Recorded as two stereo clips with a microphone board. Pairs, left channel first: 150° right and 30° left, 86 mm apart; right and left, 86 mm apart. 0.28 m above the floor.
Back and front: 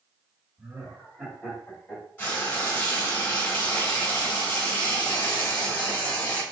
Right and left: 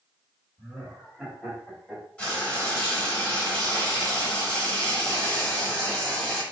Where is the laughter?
15° left, 1.8 m; by 2.0 s 170° left, 1.6 m.